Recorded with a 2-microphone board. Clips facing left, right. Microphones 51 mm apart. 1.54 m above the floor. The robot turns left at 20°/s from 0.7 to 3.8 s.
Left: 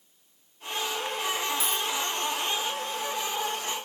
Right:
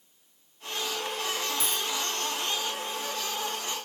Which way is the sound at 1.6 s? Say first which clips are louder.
Left 2 dB; 10° left (ahead or behind).